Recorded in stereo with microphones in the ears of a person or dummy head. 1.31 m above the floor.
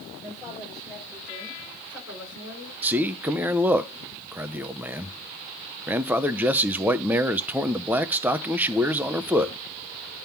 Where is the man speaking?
10° right (ahead or behind), 0.6 m.